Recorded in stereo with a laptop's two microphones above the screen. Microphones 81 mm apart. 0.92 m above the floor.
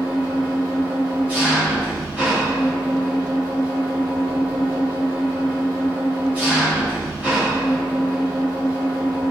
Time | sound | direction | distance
0.0 | an engine running | 20° right (ahead or behind) | 4.5 m